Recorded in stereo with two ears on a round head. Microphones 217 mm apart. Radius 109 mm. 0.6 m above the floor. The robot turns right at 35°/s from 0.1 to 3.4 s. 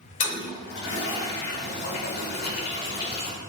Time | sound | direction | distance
0.2 | a toilet flushing | 30° left (ahead or behind) | 1.8 m